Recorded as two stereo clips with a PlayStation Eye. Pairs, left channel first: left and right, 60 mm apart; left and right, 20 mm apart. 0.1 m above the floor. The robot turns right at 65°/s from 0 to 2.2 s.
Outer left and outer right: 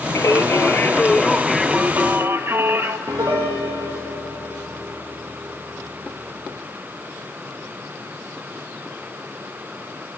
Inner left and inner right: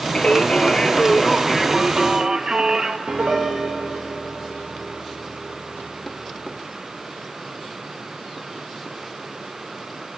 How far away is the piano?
About 4 m.